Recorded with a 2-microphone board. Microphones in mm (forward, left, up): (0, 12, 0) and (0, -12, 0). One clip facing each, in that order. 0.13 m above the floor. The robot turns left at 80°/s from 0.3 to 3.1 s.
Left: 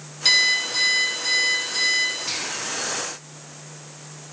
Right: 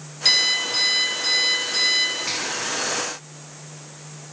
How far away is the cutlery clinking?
No cutlery clinking in this recording.